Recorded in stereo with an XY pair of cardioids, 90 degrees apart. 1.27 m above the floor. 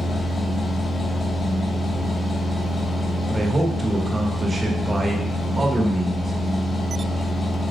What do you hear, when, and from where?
0.0 s a machine running: 40° left, 4 m
3.3 s a man speaking: 25° right, 2.0 m